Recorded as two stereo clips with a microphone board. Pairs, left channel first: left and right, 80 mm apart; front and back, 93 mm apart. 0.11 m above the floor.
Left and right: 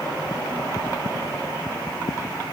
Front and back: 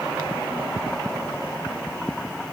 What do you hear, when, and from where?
Only background noise.